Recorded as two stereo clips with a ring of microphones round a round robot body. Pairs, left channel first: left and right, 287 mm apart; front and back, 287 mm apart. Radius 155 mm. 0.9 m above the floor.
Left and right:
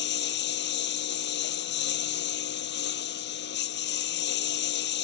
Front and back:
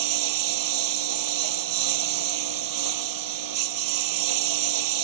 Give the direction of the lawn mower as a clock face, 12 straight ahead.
7 o'clock.